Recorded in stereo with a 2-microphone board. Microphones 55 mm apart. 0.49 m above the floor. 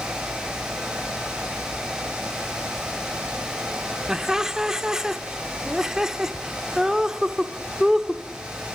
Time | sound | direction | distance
4.1 | laughter | 10° right (ahead or behind) | 0.8 m